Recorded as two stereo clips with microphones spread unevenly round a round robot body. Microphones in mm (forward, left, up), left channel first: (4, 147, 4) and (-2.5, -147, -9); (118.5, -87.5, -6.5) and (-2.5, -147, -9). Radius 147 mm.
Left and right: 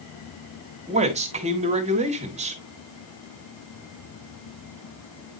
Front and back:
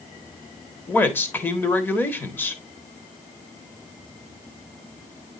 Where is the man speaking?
40° right, 1.4 m.